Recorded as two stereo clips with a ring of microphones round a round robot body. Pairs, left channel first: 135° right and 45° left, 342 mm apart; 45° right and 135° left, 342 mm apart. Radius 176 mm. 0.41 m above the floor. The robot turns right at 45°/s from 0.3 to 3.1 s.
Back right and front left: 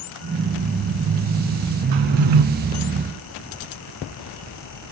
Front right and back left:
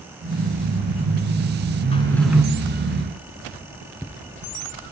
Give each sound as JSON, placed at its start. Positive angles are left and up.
{"t": 1.9, "sound": "a drawer", "azimuth_deg": 30, "distance_m": 2.0}